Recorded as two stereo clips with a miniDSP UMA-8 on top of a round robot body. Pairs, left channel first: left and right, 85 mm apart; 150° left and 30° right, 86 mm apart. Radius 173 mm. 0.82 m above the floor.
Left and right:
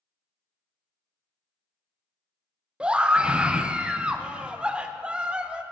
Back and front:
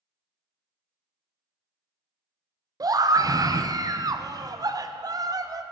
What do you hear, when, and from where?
2.8 s a scream: 15° right, 0.9 m